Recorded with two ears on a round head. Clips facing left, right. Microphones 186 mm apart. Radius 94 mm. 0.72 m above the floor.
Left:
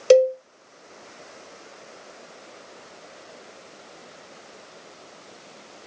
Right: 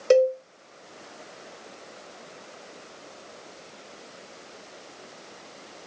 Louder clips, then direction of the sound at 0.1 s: Left 4 dB; 40° left (ahead or behind).